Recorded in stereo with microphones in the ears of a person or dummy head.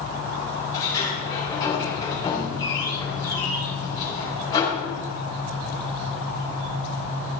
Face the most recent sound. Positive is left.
turn(degrees=20)  # may be behind; listen again after turning